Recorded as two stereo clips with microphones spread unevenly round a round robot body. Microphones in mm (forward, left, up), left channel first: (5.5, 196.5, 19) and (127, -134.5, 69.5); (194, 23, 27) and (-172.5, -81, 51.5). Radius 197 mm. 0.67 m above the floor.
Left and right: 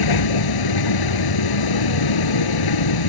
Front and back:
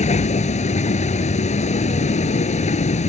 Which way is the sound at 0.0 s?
90° left.